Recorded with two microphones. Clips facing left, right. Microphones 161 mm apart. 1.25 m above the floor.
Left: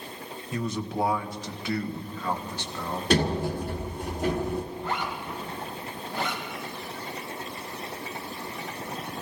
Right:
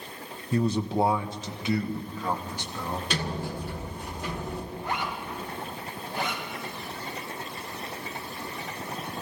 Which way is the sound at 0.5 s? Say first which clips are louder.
Right 5 dB; 35° right (ahead or behind).